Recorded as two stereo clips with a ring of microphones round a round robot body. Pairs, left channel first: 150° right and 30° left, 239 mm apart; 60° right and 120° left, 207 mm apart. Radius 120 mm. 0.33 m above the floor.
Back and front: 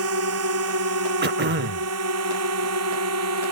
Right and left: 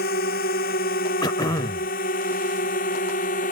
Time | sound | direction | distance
0.0 | a drone | 5° right | ?
1.2 | throat clearing | 5° left | ?